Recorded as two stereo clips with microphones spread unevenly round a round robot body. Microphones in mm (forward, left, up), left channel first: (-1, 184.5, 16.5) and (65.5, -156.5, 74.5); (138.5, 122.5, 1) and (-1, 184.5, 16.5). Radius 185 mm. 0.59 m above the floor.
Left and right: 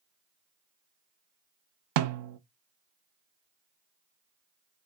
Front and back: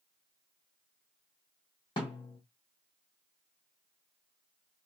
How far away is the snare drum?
About 0.5 m.